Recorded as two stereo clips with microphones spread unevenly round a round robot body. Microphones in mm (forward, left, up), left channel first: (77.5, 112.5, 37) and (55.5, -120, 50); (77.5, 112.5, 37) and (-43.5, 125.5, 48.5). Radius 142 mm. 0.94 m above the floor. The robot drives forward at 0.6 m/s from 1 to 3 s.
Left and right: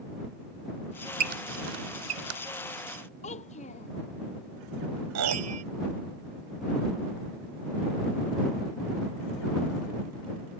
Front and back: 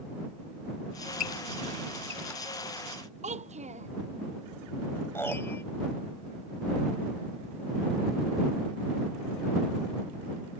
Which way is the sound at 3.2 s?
150° left.